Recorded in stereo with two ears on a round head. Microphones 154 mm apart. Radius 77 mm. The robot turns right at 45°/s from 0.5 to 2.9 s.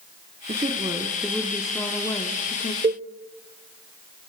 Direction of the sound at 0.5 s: 50° right.